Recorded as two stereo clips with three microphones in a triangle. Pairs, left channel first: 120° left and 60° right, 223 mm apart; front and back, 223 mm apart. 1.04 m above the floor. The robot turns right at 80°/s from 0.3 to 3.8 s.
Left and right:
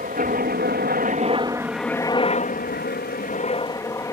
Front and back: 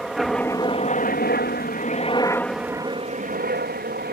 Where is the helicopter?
90° right; by 4.1 s 170° right.